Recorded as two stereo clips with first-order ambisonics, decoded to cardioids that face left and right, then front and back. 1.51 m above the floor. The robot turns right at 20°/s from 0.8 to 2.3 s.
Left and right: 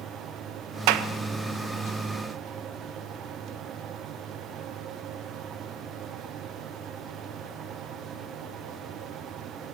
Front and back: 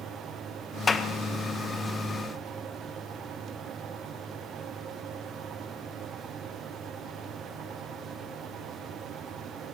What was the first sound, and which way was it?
A clap, 75° right.